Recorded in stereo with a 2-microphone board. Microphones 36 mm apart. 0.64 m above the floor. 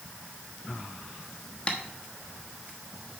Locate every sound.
1.7 s tapping: 25° left (ahead or behind), 1.1 m